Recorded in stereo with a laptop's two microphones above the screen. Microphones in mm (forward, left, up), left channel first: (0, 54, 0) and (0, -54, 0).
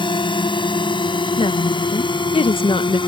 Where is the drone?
50° left (ahead or behind).